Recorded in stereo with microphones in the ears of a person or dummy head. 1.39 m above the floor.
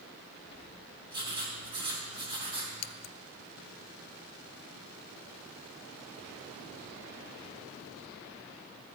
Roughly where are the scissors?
Left.